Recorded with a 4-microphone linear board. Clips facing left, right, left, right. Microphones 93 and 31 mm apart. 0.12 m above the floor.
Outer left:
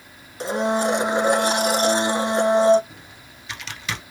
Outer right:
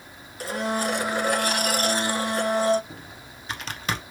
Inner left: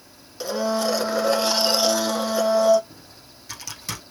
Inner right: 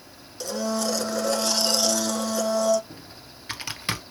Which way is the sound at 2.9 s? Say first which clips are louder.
Outer right 3 dB, inner right 3 dB; 45° right (ahead or behind).